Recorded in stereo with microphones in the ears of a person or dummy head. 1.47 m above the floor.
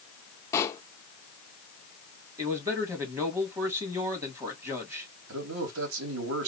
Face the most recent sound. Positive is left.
turn(degrees=-80)